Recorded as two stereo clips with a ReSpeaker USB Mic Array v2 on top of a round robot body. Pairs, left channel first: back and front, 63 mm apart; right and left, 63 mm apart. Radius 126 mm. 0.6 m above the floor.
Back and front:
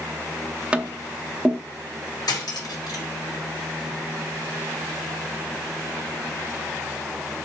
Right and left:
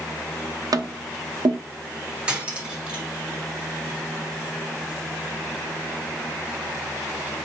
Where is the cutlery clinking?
165° left, 2.5 m.